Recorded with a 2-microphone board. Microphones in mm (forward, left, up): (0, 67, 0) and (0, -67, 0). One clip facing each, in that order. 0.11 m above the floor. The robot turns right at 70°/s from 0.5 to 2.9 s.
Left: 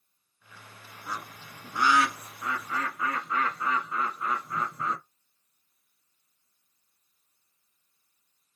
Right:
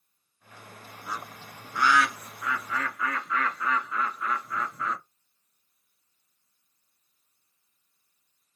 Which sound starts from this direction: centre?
A bird, at 1.1 s.